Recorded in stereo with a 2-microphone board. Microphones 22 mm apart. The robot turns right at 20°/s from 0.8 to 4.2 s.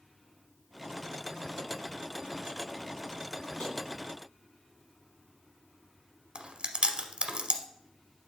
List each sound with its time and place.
3.6 s tapping: 50° left (ahead or behind), 3 m
6.3 s chewing: 55° right (ahead or behind), 0.8 m